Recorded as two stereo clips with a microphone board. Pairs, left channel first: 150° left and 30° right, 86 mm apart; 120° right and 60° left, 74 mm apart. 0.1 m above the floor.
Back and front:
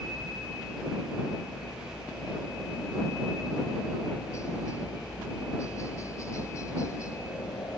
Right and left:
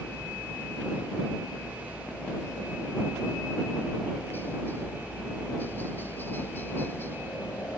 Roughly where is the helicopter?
Behind.